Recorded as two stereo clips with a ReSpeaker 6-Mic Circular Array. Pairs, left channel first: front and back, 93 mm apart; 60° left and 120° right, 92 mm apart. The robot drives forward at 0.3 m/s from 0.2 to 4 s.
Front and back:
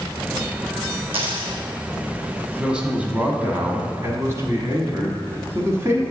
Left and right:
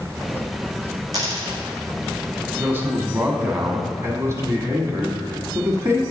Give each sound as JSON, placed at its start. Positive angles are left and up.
{"t": 1.1, "sound": "a dropped coin", "azimuth_deg": -170, "distance_m": 1.5}
{"t": 2.6, "sound": "a man speaking", "azimuth_deg": -110, "distance_m": 1.0}